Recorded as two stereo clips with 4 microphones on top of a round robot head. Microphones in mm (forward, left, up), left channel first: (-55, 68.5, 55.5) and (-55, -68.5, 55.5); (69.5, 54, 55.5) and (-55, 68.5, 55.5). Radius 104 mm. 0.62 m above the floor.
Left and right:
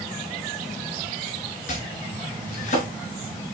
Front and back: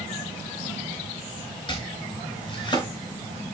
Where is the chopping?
45° left, 4 m.